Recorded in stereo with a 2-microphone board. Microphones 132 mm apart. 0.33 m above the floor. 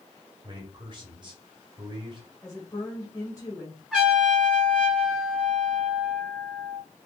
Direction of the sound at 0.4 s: 35° right (ahead or behind).